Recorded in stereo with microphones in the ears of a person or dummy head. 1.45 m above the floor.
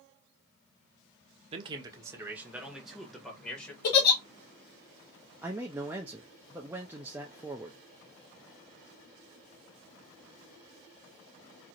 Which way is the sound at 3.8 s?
55° left (ahead or behind).